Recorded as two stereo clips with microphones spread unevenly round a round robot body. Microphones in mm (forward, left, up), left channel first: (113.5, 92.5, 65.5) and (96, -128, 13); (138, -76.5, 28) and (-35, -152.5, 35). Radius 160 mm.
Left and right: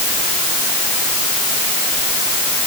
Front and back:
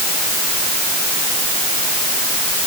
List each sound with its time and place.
Only background noise.